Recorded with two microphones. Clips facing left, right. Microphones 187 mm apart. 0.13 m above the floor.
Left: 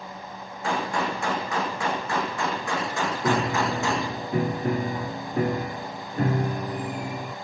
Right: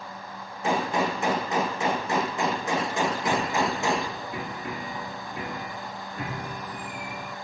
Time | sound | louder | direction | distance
0.6 | a gunshot | right 2 dB | 20° right (ahead or behind) | 5 m
3.2 | a piano | left 2 dB | 45° left (ahead or behind) | 0.7 m